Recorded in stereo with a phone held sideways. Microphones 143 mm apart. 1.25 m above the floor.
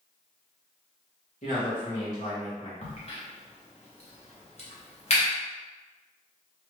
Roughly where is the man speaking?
Left.